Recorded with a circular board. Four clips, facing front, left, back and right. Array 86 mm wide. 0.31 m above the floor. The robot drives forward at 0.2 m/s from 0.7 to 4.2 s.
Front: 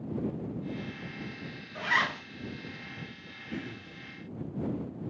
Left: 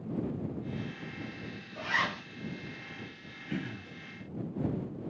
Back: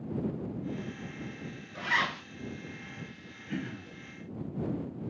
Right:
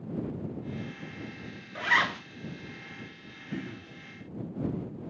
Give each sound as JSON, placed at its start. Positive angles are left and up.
{"t": 1.8, "sound": "a zipper", "azimuth_deg": -85, "distance_m": 0.9}
{"t": 3.5, "sound": "throat clearing", "azimuth_deg": 130, "distance_m": 2.0}